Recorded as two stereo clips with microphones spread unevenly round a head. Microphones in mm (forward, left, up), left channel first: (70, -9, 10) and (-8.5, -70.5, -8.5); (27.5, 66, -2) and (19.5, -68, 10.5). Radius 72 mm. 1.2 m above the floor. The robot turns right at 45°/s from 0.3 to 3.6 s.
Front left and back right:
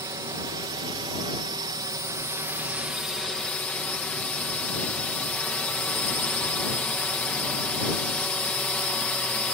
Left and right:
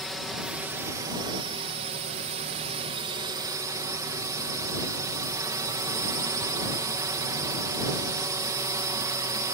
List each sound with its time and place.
0.0 s a drone: 175° left; by 9.6 s 35° right